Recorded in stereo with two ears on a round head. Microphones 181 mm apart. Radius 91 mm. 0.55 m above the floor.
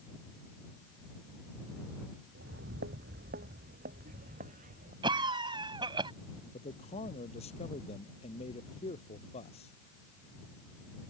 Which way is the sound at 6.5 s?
30° left (ahead or behind).